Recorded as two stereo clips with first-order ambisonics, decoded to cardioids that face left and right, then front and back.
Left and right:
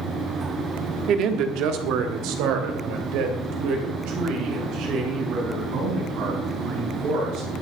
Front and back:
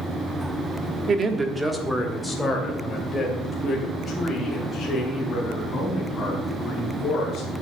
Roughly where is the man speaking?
Behind right.